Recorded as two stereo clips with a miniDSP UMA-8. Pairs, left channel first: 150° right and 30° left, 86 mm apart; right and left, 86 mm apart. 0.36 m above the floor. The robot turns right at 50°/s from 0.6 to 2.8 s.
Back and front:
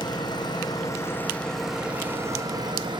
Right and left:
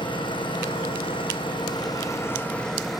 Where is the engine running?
115° right, 5 m; by 3.0 s 5° right, 5 m.